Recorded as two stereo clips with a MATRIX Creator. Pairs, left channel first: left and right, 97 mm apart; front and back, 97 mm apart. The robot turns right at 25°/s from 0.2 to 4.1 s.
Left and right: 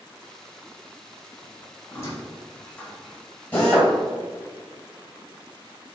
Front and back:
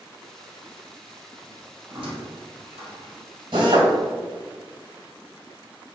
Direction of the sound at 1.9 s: 145° left.